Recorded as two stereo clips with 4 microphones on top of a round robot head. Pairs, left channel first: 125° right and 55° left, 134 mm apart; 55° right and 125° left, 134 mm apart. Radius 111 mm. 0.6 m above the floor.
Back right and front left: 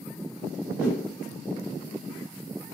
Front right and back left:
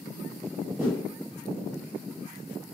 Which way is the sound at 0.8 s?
80° right.